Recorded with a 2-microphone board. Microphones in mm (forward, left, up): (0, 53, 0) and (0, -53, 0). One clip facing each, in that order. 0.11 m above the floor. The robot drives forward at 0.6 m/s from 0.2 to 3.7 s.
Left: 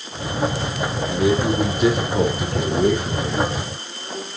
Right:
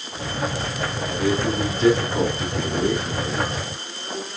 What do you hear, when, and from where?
1.1 s a man speaking: 15° left (ahead or behind), 3 m; by 3.5 s 10° left (ahead or behind), 4.5 m